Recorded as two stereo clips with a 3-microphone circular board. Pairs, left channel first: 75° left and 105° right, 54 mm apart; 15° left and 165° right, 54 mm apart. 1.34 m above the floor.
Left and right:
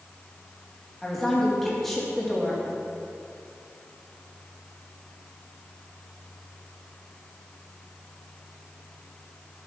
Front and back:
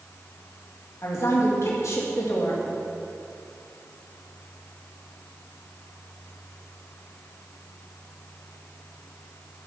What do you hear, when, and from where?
1.0 s a woman speaking: 10° right, 2.5 m